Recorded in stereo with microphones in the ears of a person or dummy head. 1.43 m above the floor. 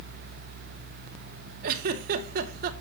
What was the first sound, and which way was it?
A giggle, 55° right (ahead or behind).